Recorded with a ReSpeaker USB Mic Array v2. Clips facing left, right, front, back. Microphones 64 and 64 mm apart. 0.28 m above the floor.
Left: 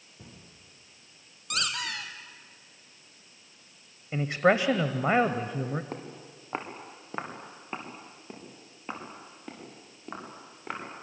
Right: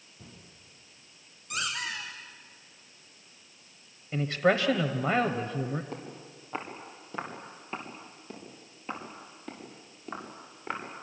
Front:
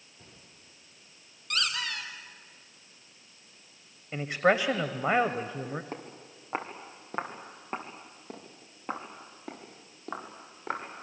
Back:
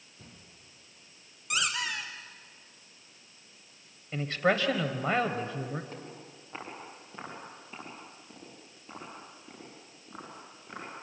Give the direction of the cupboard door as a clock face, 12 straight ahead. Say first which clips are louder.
Left 1 dB, back 2 dB; 9 o'clock.